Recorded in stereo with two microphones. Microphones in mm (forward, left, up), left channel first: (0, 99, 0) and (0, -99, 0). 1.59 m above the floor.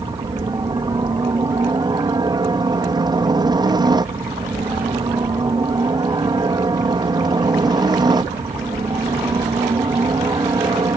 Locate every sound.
0.0 s a helicopter: 20° right (ahead or behind)